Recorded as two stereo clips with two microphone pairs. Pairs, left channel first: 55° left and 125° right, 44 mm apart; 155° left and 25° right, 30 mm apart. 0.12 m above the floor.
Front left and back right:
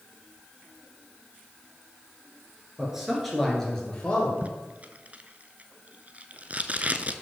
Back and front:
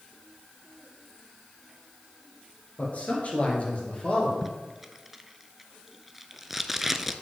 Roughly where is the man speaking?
Behind.